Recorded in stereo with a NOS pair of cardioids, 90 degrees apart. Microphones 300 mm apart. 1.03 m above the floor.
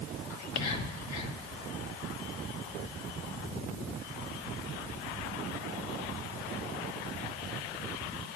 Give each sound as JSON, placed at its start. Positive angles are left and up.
{"t": 0.3, "sound": "whispering", "azimuth_deg": 65, "distance_m": 1.2}